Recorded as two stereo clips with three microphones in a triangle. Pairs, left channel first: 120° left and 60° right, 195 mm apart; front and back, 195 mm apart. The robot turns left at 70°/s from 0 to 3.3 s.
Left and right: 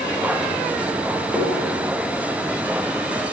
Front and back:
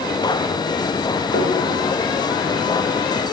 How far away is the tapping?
About 9.5 m.